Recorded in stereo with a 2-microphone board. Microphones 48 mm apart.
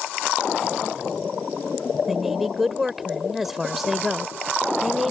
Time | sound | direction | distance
2.1 | a woman speaking | 5° right (ahead or behind) | ?